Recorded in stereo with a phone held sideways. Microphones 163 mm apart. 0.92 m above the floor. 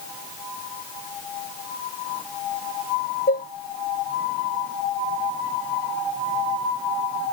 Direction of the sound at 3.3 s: 75° left (ahead or behind).